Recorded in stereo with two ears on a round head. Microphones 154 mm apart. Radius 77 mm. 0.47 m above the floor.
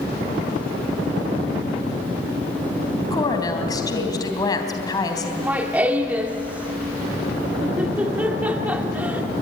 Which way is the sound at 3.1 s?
25° left (ahead or behind).